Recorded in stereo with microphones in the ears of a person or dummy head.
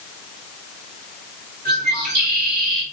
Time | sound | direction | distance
1.6 | a bird | 45° right (ahead or behind) | 5.5 m